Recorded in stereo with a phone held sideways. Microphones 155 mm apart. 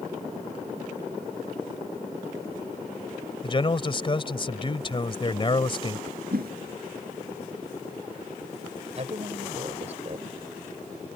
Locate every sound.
3.4 s a man speaking: 35° left (ahead or behind)
6.3 s a whoosh: 90° right
8.9 s a woman speaking: 45° right (ahead or behind)